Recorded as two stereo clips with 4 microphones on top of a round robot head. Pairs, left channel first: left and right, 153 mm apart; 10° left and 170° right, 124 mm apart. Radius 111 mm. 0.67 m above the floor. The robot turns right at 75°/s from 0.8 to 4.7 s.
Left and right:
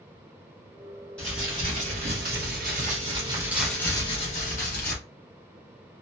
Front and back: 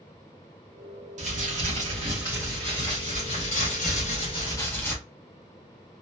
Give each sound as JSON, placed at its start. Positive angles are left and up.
{"t": 1.2, "sound": "crumpling", "azimuth_deg": 175, "distance_m": 2.0}